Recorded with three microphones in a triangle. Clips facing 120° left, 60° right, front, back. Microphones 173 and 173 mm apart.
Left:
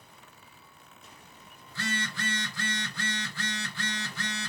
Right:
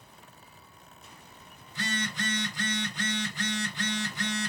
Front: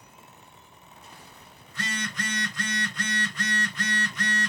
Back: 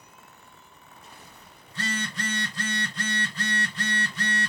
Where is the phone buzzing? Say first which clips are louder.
Right 1 dB, back 2 dB; 125° right, 1.2 m.